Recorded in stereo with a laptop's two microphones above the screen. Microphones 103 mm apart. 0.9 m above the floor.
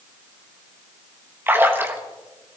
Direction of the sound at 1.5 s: 20° right (ahead or behind).